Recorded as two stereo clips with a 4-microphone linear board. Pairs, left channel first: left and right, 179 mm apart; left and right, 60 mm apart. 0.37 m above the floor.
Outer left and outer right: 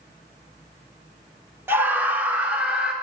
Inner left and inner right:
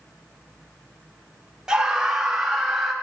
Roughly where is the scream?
Centre.